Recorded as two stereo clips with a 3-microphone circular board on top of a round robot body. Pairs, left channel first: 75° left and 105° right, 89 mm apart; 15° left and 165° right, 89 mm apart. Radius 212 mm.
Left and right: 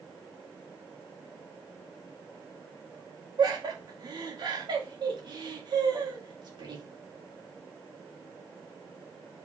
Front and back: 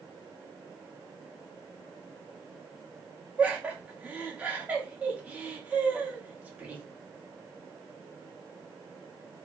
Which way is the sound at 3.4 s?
95° right.